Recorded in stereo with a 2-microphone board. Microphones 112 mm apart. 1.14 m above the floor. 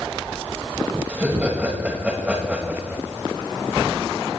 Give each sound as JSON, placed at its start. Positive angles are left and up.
{"t": 1.1, "sound": "laughter", "side_deg": -15, "distance_m": 6.5}